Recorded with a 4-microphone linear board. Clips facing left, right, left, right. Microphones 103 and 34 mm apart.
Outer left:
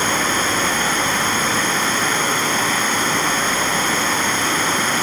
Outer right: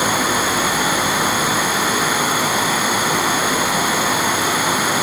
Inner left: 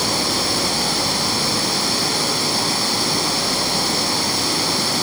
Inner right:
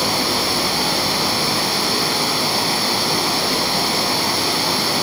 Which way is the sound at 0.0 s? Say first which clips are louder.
Outer right 2 dB, inner right 1 dB; 10° right (ahead or behind).